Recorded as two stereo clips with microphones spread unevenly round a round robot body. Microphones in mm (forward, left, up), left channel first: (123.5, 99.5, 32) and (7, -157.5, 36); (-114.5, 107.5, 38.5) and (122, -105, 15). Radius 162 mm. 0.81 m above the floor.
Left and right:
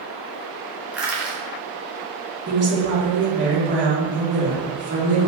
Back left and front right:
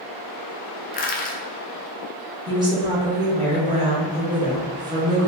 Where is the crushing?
165° left, 0.5 m.